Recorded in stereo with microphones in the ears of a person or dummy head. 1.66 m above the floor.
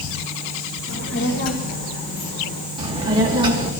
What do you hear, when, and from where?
0.9 s a child speaking: 70° left (ahead or behind), 2.0 m; by 2.7 s 30° left (ahead or behind), 3.5 m
2.8 s a child speaking: 25° right (ahead or behind), 3 m